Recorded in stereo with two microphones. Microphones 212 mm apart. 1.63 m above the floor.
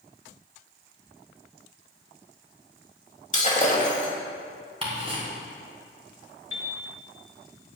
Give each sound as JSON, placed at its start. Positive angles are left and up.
{"t": 3.3, "sound": "breaking glass", "side_deg": 35, "distance_m": 1.9}
{"t": 4.8, "sound": "ticking", "side_deg": -30, "distance_m": 3.5}
{"t": 6.5, "sound": "a piano", "side_deg": -85, "distance_m": 1.7}